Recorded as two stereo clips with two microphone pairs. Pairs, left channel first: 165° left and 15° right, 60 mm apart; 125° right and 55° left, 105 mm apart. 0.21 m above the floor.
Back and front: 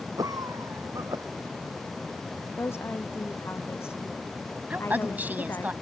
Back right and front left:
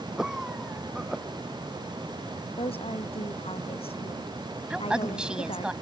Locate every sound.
0.2 s a cough: 30° right
2.6 s a woman speaking: 150° right
4.7 s a woman speaking: 15° right